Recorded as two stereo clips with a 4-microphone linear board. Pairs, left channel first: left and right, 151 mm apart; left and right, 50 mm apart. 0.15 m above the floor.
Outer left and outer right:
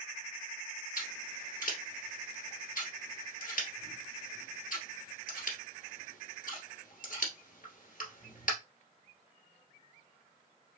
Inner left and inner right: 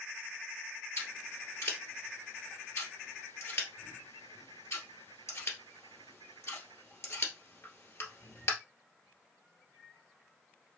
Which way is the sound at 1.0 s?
65° left (ahead or behind).